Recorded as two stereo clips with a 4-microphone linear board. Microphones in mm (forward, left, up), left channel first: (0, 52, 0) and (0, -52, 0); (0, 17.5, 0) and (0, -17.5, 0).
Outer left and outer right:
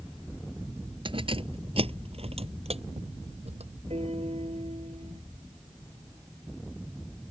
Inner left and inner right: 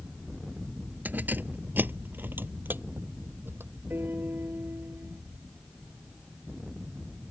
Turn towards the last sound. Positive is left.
turn(degrees=-75)  # may be behind; listen again after turning